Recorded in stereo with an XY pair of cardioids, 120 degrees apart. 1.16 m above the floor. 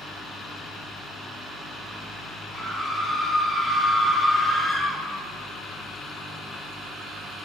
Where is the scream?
15° right, 1.3 m.